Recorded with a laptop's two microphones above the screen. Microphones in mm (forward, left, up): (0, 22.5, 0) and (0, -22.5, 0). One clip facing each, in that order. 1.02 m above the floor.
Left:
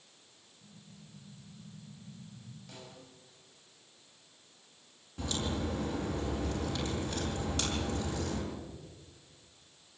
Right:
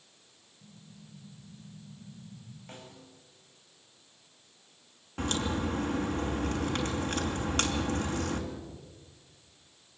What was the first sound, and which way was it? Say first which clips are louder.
An explosion: right 2 dB; 50° right (ahead or behind).